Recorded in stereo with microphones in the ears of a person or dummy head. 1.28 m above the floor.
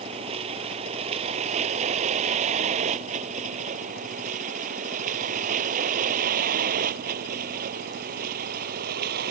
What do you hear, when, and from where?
0.0 s a vehicle: 30° right (ahead or behind); by 9.3 s 50° right (ahead or behind)